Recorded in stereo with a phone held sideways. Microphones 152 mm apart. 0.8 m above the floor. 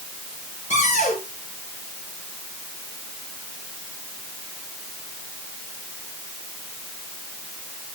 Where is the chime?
No chime in this recording.